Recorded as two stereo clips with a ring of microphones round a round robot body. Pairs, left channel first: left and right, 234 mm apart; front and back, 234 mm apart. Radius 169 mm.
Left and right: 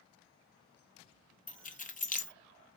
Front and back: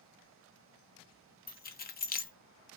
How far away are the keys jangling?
About 0.6 m.